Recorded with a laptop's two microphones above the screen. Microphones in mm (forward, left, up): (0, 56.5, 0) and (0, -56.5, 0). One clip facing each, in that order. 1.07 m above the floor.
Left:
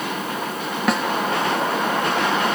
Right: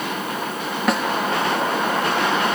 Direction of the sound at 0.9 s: Centre (ahead or behind).